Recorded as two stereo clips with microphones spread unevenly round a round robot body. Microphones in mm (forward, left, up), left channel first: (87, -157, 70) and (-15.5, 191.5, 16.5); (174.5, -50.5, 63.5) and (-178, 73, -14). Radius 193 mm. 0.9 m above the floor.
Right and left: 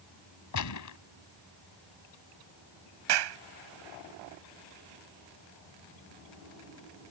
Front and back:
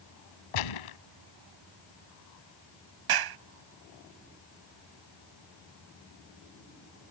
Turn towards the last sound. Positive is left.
turn(degrees=130)